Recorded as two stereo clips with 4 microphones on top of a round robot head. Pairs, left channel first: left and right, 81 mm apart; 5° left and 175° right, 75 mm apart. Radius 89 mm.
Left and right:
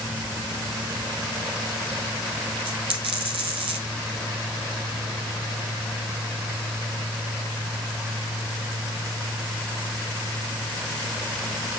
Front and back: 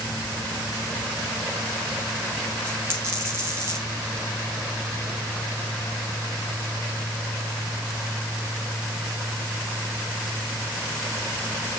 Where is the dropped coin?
110° right, 1.5 m.